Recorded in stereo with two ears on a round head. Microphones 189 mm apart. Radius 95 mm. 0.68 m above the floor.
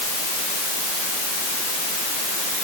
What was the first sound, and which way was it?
Only background noise.